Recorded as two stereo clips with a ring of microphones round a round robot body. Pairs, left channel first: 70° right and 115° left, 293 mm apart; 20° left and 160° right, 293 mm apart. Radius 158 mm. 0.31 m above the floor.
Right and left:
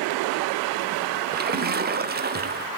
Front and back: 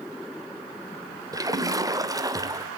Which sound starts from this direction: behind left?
A splash, at 1.3 s.